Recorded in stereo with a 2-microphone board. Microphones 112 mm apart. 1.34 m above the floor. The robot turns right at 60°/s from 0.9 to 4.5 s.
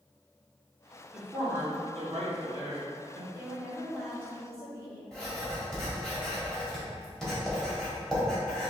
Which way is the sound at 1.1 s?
170° right.